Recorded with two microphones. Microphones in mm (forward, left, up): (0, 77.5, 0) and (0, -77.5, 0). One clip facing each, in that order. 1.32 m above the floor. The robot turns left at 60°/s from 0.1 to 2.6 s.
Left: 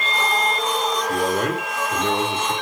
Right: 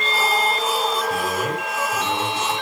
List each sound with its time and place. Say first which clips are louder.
1.1 s a man speaking: left 2 dB; 130° left, 2.5 m; by 2.5 s 45° left, 2.5 m